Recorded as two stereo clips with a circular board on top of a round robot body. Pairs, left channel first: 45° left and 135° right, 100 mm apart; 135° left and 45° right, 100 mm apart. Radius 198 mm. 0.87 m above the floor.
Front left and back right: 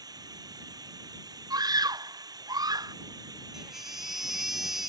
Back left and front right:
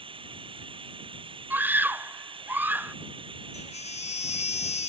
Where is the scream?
110° right.